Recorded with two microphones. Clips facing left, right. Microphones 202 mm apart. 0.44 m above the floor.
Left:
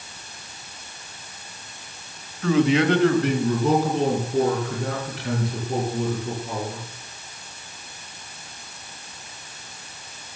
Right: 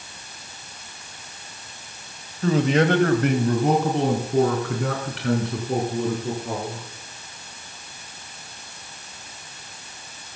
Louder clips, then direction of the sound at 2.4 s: Left 1 dB; 35° right (ahead or behind).